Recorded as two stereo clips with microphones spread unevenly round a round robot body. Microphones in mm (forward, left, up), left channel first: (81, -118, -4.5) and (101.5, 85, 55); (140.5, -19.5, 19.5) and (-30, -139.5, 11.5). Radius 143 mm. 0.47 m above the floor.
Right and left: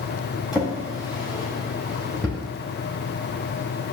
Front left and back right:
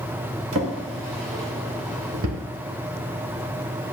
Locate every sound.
0.5 s a drawer: 175° left, 0.7 m